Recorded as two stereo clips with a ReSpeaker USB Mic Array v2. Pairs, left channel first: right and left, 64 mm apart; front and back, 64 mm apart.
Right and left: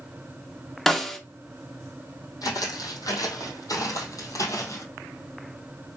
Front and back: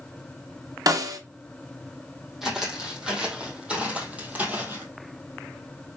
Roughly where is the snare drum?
Behind.